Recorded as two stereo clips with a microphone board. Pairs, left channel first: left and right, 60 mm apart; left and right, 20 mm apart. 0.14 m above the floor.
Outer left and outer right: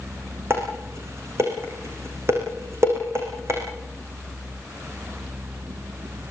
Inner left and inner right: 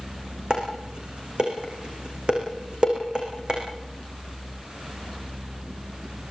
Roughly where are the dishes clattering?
Right.